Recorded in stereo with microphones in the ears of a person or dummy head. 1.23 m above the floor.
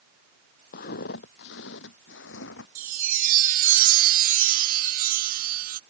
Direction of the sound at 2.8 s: 50° right (ahead or behind).